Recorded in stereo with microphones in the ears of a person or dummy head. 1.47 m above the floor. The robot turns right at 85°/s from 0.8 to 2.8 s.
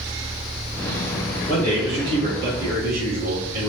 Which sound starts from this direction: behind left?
A man speaking, at 1.5 s.